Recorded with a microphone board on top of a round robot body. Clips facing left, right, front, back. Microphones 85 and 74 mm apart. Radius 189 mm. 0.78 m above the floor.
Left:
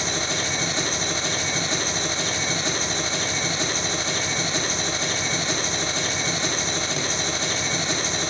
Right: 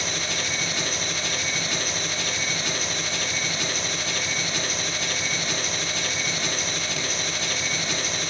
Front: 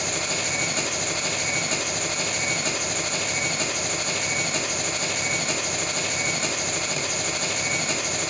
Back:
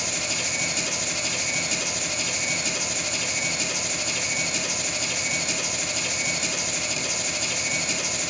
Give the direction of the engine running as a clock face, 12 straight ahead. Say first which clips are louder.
Left 3 dB, front 3 dB; 11 o'clock.